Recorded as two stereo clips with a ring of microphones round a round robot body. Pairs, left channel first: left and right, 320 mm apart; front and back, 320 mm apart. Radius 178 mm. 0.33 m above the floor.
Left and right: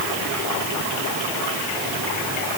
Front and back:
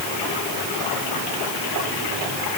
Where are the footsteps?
I don't hear footsteps.